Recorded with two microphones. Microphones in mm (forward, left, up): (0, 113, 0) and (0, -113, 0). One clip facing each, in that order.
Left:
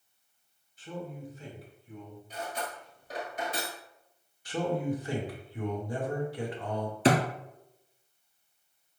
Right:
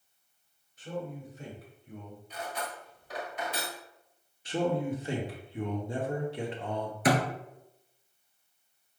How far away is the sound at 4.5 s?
About 1.1 m.